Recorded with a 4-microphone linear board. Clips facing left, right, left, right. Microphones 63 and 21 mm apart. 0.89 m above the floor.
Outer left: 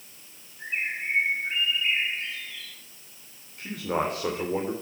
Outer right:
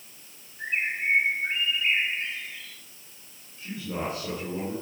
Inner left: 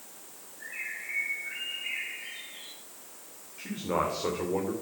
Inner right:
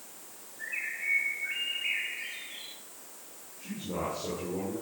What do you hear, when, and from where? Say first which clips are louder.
0.6 s a bird: outer right 2 dB, inner right 3 dB; 30° right (ahead or behind), 7.5 m
3.6 s a man speaking: outer left 5 dB, inner left 6 dB; 55° left (ahead or behind), 2.5 m